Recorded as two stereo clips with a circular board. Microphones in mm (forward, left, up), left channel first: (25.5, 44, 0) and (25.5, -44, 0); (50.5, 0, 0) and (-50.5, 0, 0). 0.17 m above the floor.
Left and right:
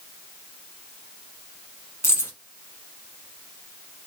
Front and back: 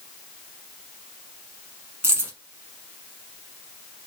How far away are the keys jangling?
About 1.1 m.